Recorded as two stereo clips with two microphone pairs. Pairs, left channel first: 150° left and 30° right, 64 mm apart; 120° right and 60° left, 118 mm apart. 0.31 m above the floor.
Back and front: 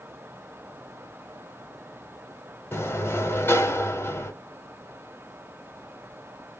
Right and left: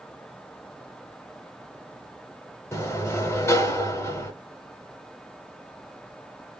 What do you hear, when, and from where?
2.7 s a sliding door: 175° right, 0.8 m